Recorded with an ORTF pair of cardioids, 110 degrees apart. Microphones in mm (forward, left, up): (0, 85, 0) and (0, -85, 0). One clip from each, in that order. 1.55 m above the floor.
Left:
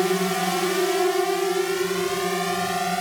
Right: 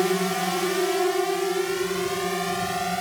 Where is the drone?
5° left; by 3.0 s 35° left.